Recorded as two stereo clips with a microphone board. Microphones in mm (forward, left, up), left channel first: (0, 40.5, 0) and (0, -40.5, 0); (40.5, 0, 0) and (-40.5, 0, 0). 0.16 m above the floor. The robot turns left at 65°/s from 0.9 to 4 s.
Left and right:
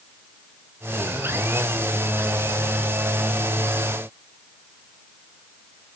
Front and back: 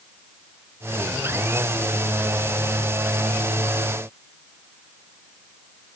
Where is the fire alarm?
I don't hear a fire alarm.